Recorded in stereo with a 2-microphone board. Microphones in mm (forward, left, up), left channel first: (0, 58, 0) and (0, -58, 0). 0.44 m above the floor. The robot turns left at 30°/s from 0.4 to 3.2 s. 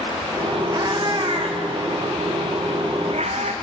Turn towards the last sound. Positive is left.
turn(degrees=-75)  # may be behind; listen again after turning